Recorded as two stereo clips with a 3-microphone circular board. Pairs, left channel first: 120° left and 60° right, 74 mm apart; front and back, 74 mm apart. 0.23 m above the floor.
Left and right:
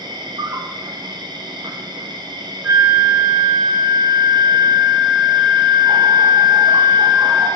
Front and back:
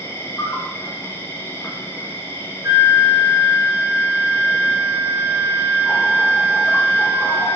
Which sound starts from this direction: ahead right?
An insect, at 0.0 s.